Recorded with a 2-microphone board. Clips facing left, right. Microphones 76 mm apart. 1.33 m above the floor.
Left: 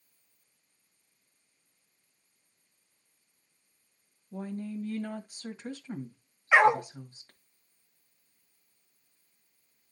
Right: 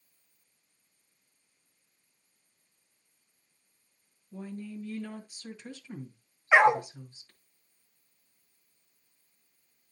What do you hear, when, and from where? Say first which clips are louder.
4.3 s a woman speaking: left 4 dB; 40° left (ahead or behind), 1.5 m
6.5 s a dog barking: even; 15° right (ahead or behind), 0.8 m